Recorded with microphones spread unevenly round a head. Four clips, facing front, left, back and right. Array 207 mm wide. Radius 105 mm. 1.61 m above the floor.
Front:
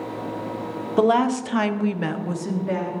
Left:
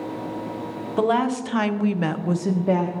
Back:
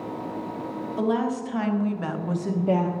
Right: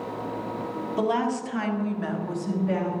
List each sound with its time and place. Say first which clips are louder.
1.0 s a woman speaking: left 5 dB, front 7 dB; 20° left, 1.6 m; by 2.9 s 125° left, 1.2 m